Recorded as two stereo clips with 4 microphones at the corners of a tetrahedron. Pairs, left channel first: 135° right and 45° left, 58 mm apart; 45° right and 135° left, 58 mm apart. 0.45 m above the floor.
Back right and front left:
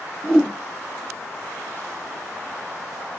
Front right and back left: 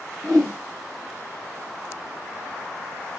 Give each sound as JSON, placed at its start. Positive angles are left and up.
{"t": 0.2, "sound": "a whoosh", "azimuth_deg": 150, "distance_m": 2.5}